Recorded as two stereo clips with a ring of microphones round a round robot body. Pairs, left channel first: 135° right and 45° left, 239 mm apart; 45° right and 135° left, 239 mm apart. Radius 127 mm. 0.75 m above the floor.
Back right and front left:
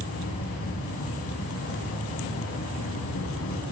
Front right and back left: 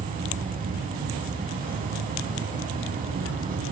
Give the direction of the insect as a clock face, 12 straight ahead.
6 o'clock.